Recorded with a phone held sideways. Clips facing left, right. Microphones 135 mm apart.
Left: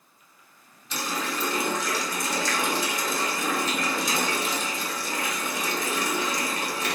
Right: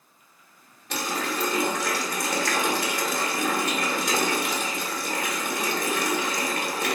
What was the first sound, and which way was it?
A running tap, 60° right (ahead or behind).